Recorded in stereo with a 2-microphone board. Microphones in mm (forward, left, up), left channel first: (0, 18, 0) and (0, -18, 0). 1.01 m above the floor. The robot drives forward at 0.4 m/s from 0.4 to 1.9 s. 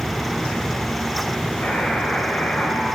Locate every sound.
1.6 s a buzzer: 70° left (ahead or behind), 2 m; by 2.9 s 75° left (ahead or behind), 2 m